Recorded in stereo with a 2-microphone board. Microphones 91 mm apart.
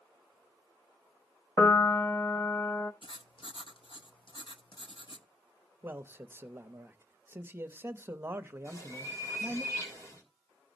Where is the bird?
40° left (ahead or behind), 3.5 m.